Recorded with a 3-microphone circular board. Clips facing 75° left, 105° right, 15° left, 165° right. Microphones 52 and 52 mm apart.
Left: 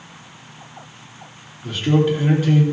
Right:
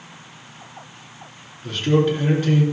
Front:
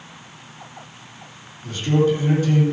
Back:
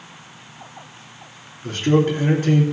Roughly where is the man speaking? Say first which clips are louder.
Left 1 dB, back 1 dB; behind left.